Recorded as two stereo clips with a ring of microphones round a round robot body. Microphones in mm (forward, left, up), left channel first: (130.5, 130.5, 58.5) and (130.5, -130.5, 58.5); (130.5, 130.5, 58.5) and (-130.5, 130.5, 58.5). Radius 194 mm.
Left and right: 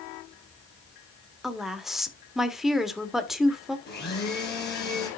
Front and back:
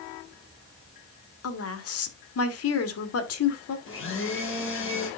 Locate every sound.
1.4 s a woman speaking: straight ahead, 2.0 m
3.9 s a blender: 40° left, 4.5 m